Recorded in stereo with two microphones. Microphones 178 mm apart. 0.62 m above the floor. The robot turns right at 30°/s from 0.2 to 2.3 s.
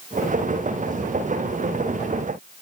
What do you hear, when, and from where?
Only background noise.